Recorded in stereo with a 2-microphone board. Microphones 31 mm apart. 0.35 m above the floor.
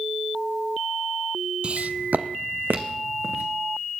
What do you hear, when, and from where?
1.6 s footsteps: 35° right (ahead or behind), 0.6 m; by 3.4 s 85° right, 2 m